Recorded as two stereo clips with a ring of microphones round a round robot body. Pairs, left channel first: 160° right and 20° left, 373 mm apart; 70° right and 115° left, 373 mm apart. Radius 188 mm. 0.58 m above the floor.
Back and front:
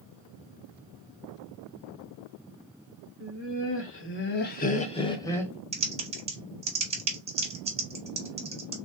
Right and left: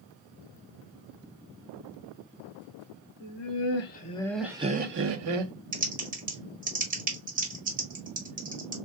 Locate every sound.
3.2 s laughter: 105° right, 0.9 m; by 5.5 s 120° left, 0.8 m
5.7 s typing on a keyboard: 75° left, 1.2 m